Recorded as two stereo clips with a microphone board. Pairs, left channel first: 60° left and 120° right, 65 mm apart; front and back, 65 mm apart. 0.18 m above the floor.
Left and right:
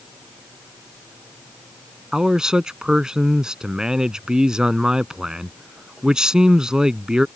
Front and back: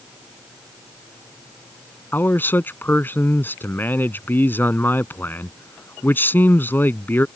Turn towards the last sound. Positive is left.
turn(degrees=-45)